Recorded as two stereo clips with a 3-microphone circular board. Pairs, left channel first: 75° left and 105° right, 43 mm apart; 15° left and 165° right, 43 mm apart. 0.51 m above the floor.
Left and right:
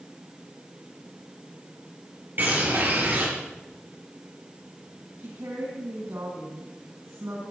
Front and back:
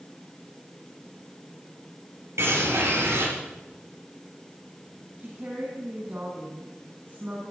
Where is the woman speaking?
115° right, 3.5 m.